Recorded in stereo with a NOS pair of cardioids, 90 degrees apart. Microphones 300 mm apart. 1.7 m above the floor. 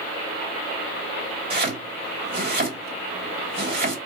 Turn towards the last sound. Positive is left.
turn(degrees=-35)